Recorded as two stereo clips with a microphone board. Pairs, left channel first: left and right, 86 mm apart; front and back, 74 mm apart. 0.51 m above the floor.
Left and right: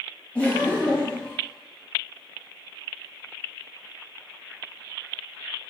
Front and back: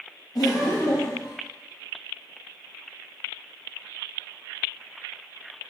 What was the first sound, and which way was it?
Laughter, 15° left.